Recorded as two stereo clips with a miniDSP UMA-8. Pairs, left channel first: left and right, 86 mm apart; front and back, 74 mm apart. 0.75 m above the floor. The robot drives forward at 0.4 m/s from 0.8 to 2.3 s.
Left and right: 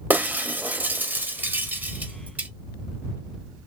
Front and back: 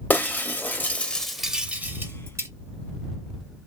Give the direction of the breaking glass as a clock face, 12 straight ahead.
1 o'clock.